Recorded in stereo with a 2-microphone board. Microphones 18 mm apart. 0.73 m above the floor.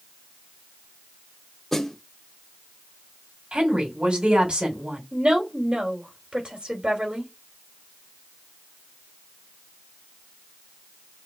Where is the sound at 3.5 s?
65° right (ahead or behind), 2 m.